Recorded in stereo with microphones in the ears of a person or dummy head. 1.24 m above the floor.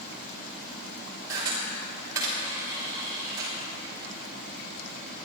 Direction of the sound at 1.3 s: 15° right (ahead or behind).